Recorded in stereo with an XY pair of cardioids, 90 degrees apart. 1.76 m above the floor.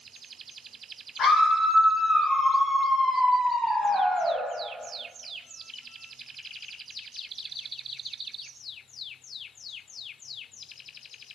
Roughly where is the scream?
Ahead left.